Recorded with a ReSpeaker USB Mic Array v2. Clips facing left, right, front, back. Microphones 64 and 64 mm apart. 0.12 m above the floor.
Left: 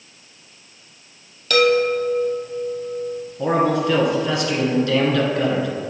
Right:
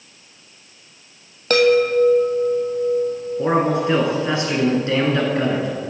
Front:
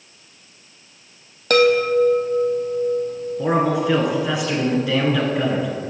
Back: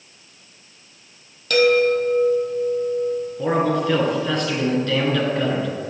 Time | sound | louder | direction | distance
1.5 | a chime | right 2 dB, front 1 dB | 40° right | 0.9 m
3.4 | a man speaking | even, front 2 dB | 70° right | 1.6 m